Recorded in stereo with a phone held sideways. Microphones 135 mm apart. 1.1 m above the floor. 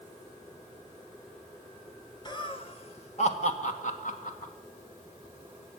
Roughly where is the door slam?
I don't hear a door slam.